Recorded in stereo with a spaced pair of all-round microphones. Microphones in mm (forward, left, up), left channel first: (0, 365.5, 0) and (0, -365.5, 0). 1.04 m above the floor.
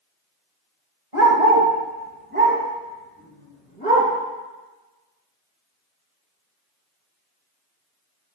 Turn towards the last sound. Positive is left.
turn(degrees=10)  # may be behind; listen again after turning